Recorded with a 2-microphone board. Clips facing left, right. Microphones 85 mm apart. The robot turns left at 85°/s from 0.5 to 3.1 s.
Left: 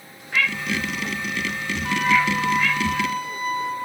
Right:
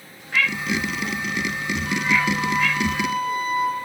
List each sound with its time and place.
1.9 s a flute: 65° left, 0.5 m; by 3.8 s 45° right, 0.5 m